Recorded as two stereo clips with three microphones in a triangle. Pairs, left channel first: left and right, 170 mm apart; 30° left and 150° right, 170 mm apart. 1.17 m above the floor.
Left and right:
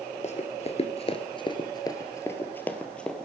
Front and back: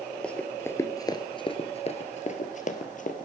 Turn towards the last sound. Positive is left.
turn(degrees=5)